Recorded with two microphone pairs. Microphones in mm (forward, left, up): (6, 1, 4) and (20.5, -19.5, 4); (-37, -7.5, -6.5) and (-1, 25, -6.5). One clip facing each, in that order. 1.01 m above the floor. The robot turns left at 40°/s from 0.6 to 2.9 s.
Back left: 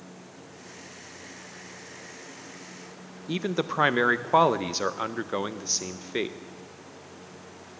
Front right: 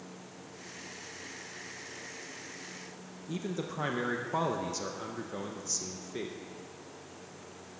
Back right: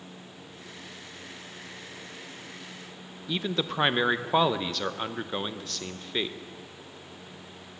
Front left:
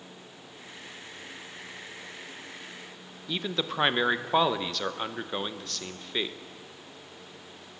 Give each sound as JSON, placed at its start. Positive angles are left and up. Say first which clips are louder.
{"t": 3.3, "sound": "a man speaking", "louder": "back left 8 dB, back right 2 dB", "azimuth_deg": 130, "distance_m": 0.6}